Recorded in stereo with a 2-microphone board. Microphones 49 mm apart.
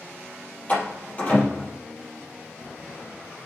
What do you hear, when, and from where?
0.7 s a door slam: 30° left (ahead or behind), 5 m